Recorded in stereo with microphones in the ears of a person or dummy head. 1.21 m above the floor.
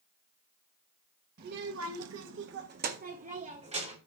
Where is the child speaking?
50° right (ahead or behind), 1.3 m; by 4.0 s 35° right (ahead or behind), 3 m.